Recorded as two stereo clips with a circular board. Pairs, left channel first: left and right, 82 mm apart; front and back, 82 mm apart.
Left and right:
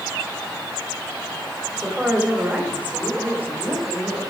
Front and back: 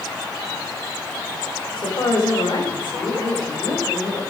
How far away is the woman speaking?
About 3 m.